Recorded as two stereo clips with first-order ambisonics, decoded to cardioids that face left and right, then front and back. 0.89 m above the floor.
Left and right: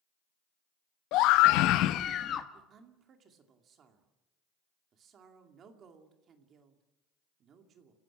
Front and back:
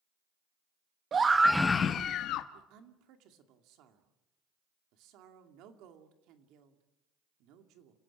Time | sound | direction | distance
1.1 | a scream | 115° left | 0.9 m
2.5 | a woman speaking | 150° right | 2.5 m